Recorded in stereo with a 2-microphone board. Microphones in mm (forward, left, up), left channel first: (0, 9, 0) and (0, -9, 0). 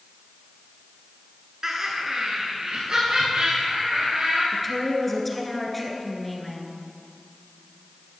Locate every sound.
1.6 s laughter: 25° right (ahead or behind), 1.3 m; by 4.4 s 70° right (ahead or behind), 3.5 m
4.5 s a woman speaking: 5° left (ahead or behind), 1.5 m